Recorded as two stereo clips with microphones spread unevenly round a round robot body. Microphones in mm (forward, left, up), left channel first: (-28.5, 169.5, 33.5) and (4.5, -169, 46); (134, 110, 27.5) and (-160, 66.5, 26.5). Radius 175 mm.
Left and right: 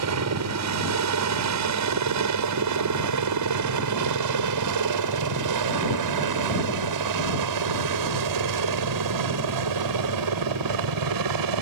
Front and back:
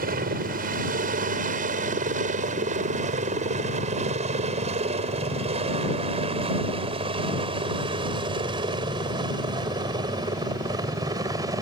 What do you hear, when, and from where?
0.0 s a helicopter: 115° right; by 11.6 s 90° right